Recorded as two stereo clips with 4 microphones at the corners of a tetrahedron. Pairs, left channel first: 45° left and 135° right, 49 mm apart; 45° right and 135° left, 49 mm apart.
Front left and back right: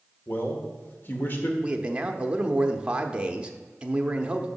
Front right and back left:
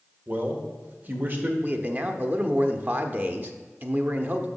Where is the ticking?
I don't hear ticking.